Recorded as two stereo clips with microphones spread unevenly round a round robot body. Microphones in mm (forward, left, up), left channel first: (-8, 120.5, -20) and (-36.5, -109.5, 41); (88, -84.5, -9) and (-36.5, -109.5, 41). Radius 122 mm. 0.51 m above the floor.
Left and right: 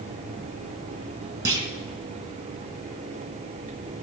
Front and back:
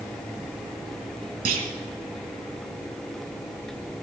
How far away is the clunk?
About 1.8 m.